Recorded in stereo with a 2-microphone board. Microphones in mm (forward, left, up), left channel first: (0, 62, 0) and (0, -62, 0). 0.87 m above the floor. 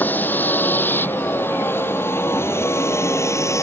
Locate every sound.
0.0 s a vehicle: 15° left (ahead or behind); by 3.6 s 25° left (ahead or behind)